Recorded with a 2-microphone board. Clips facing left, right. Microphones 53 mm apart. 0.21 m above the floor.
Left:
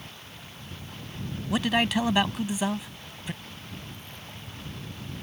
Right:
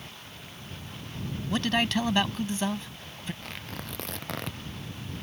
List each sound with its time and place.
1.5 s a man speaking: 10° left (ahead or behind)
3.4 s tearing paper: 85° right